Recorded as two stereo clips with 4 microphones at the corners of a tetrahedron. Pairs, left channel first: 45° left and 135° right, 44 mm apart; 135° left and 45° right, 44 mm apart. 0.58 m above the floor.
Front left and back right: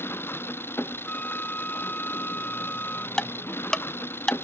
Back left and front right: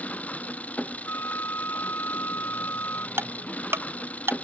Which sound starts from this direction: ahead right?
Ticking, at 3.2 s.